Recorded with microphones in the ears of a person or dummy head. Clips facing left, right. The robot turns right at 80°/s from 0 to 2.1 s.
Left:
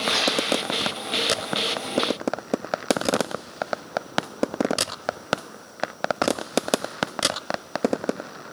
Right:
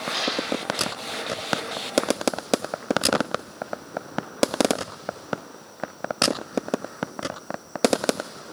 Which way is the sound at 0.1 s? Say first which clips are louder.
Left 2 dB; 70° left (ahead or behind).